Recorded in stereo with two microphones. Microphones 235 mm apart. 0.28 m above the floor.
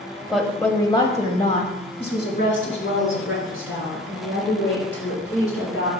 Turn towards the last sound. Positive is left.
turn(degrees=70)  # may be behind; listen again after turning